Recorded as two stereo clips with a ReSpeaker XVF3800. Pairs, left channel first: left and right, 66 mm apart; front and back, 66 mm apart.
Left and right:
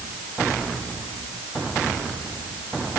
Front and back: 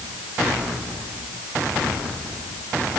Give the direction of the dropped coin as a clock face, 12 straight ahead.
I don't hear a dropped coin.